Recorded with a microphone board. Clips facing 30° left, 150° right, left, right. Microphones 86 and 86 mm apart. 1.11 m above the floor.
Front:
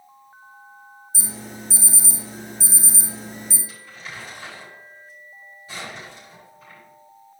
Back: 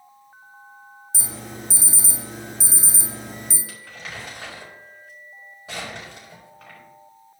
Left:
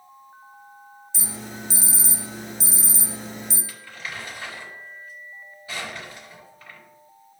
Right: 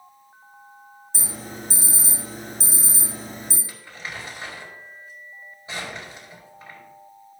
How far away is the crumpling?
About 4 m.